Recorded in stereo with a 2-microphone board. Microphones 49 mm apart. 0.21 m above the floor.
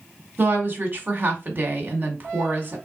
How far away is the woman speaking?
About 1.3 m.